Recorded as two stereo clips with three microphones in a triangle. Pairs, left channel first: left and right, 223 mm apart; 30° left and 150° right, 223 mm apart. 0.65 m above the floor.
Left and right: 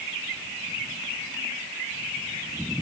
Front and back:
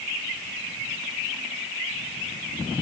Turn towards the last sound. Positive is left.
No sound to turn to.